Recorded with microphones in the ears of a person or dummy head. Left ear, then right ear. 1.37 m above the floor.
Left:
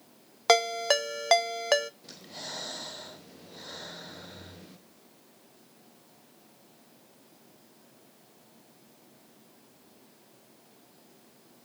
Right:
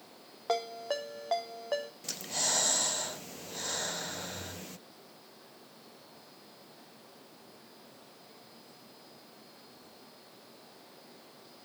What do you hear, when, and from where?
0.5 s a ringtone: 70° left (ahead or behind), 0.6 m
2.0 s breathing: 40° right (ahead or behind), 0.6 m